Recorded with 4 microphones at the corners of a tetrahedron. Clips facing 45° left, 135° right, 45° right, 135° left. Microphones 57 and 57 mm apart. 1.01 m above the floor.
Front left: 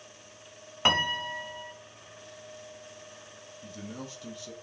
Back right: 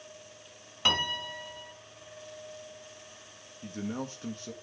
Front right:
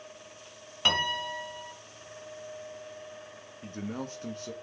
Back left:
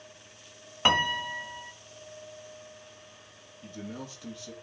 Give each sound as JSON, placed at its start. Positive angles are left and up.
{"t": 0.8, "sound": "a piano", "azimuth_deg": 85, "distance_m": 0.9}
{"t": 3.6, "sound": "a man speaking", "azimuth_deg": -85, "distance_m": 1.4}